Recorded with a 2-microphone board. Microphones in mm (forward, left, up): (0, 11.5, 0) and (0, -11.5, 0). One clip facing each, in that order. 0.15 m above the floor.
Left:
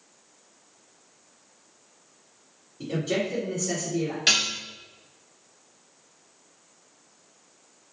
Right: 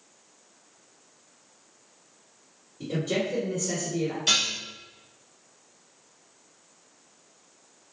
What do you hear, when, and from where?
2.8 s a man speaking: 25° left (ahead or behind), 1.4 m
4.3 s dishes clattering: 60° left (ahead or behind), 1.5 m